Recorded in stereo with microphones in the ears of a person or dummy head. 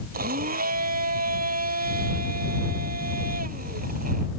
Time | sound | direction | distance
0.1 | a blender | 50° right (ahead or behind) | ?